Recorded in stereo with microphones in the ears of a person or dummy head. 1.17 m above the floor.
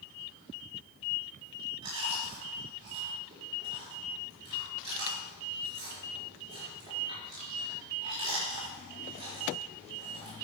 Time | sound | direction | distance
1.8 | chewing | 30° right (ahead or behind) | 5.5 m